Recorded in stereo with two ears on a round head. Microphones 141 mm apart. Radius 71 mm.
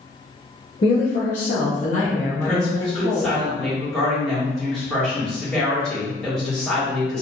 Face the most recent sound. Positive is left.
turn(degrees=5)  # may be behind; listen again after turning